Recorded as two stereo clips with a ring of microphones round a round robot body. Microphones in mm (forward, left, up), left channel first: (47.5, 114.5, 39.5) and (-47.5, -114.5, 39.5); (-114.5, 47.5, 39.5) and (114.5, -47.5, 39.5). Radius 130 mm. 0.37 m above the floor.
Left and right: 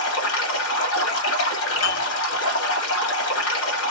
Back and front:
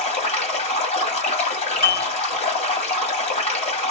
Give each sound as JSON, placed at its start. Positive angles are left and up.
{"t": 0.0, "sound": "running water", "azimuth_deg": 95, "distance_m": 2.0}
{"t": 1.8, "sound": "dishes clattering", "azimuth_deg": 90, "distance_m": 2.5}